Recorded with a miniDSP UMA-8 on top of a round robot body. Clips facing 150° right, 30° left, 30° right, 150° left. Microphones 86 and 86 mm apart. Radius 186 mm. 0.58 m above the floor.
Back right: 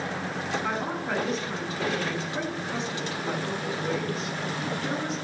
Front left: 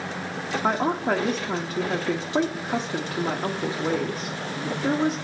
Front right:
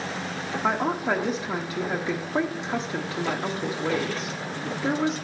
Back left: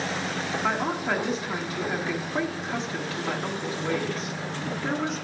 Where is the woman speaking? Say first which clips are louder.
Front left 6 dB, front right 3 dB; 30° left, 1.2 m.